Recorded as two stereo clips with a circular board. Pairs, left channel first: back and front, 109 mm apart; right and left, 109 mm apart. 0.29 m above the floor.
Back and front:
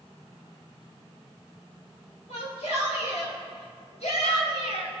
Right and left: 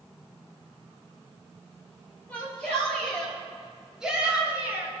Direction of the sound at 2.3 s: 165° right.